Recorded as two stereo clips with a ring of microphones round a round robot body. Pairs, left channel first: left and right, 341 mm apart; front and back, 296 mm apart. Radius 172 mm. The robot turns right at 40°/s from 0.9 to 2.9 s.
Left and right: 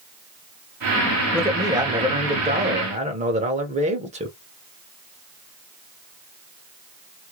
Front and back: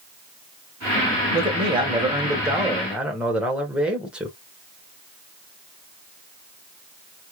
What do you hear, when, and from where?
1.3 s a man speaking: 160° right, 0.8 m; by 4.3 s 100° right, 0.8 m